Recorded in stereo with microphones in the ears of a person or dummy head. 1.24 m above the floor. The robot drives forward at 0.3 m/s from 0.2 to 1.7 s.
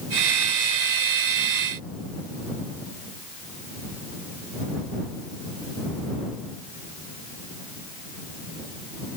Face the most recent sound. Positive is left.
No sound to turn to.